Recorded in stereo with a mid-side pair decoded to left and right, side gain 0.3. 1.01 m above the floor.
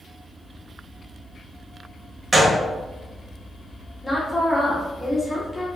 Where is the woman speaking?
20° left, 1.4 m.